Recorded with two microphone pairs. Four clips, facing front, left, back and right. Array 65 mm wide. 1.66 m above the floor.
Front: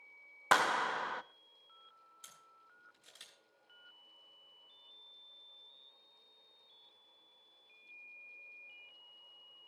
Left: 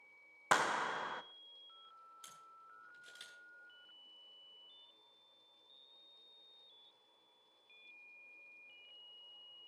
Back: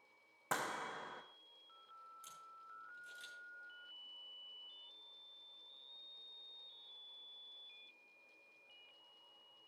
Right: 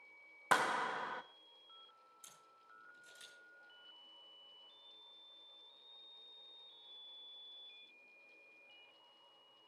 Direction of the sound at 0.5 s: 5° left.